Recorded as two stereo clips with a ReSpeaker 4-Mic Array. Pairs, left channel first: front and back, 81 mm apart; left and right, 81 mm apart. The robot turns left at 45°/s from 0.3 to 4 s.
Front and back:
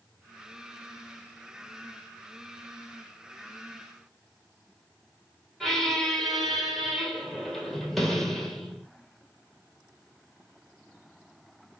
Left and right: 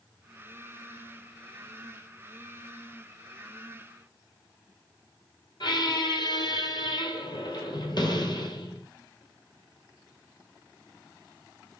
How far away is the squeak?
About 1.5 m.